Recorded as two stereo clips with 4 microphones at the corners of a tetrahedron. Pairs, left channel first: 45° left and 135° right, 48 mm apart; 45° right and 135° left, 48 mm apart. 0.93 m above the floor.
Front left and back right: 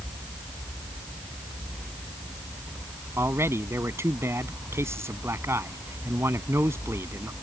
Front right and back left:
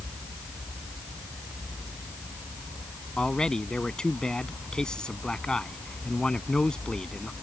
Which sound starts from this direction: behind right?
A man speaking, at 3.2 s.